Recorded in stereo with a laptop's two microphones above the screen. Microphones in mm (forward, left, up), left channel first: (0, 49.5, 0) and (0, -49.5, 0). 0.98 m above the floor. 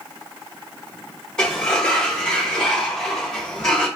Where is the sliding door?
10° left (ahead or behind), 1.1 m.